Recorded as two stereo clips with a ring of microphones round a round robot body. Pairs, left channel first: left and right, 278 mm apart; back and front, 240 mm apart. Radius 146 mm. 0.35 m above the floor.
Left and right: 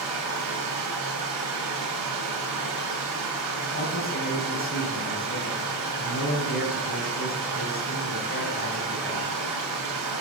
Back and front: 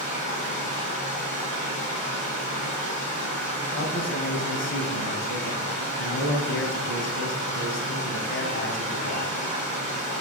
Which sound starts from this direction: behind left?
A man speaking, at 3.7 s.